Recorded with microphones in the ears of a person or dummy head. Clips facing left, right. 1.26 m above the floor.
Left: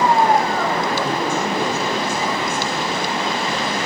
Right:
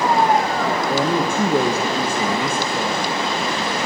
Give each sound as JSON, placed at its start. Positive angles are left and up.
{"t": 0.9, "sound": "a woman speaking", "side_deg": -45, "distance_m": 1.3}